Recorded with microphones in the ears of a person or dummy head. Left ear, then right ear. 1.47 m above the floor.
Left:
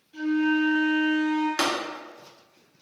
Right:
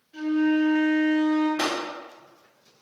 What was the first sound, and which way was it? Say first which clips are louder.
A flute: right 1 dB; centre (ahead or behind).